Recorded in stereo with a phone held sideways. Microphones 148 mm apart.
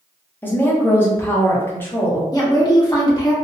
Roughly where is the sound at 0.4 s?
Centre.